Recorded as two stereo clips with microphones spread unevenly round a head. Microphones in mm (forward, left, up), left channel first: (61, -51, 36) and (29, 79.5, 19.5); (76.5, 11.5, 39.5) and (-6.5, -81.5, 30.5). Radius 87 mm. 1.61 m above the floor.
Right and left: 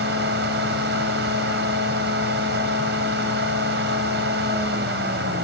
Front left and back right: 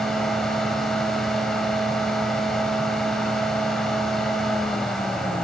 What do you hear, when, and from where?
0.0 s a fan: 135° left, 5.5 m